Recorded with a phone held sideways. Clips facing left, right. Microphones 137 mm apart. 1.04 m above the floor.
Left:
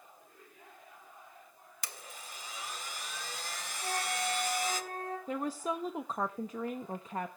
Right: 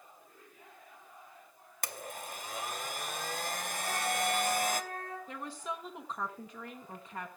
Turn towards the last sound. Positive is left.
turn(degrees=45)  # may be behind; listen again after turning